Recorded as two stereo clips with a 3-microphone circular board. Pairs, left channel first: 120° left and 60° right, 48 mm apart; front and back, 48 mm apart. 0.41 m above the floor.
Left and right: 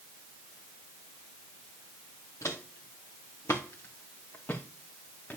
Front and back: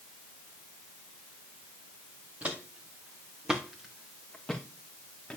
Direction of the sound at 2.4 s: 120° left.